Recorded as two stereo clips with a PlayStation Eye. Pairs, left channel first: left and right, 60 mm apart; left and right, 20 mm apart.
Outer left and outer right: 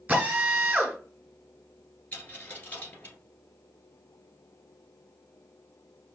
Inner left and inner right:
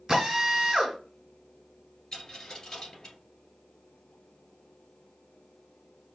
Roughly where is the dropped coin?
Left.